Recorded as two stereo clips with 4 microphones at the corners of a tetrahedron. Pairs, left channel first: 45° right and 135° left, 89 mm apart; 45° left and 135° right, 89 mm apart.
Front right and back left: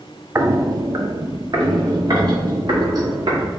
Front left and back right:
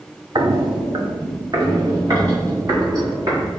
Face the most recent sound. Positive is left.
turn(degrees=175)